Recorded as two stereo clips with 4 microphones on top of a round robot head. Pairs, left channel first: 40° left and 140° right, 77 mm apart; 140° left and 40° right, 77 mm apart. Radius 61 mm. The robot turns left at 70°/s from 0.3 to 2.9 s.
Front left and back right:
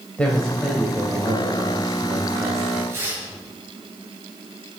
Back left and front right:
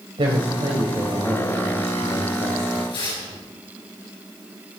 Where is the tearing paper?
160° left, 5 m.